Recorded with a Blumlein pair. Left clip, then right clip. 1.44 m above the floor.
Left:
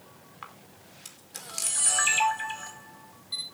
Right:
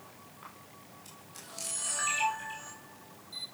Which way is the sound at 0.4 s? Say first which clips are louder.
Left 6 dB; 40° left.